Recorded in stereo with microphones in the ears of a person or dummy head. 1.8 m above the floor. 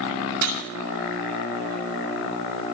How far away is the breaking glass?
About 6 m.